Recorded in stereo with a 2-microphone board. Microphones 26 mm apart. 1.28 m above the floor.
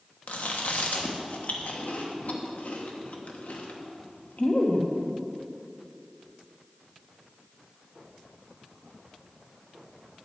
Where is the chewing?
70° left (ahead or behind), 1.2 m.